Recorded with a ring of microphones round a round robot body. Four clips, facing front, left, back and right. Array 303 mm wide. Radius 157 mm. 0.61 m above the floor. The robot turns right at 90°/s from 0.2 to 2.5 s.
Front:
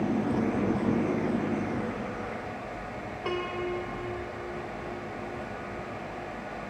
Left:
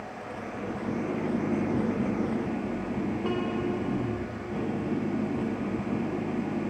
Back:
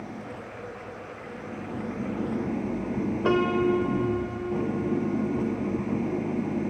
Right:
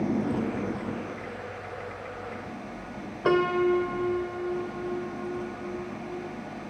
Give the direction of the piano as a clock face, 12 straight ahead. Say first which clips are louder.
Right 11 dB, back 9 dB; 4 o'clock.